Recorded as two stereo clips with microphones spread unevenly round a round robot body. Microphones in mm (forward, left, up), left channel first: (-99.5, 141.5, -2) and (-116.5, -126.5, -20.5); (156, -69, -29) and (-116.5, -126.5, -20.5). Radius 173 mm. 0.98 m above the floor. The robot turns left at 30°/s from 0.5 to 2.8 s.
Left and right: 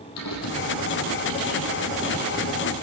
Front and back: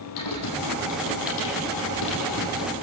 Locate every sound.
0.2 s typing on a keyboard: 40° left, 6 m; by 2.7 s 25° right, 6 m